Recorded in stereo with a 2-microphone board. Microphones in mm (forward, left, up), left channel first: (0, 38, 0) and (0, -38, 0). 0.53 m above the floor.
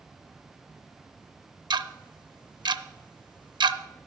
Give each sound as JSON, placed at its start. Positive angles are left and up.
{"t": 1.7, "sound": "ticking", "side_deg": -85, "distance_m": 0.6}